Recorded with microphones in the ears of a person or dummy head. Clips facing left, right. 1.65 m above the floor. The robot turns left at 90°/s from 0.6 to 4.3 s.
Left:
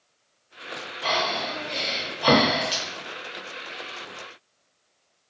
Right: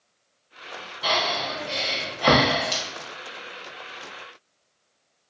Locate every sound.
1.0 s breathing: 35° right (ahead or behind), 0.9 m; by 2.8 s 15° left (ahead or behind), 0.9 m